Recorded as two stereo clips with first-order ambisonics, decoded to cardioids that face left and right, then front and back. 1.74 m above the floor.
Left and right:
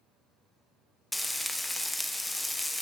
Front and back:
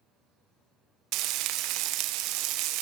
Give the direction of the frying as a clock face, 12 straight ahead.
6 o'clock.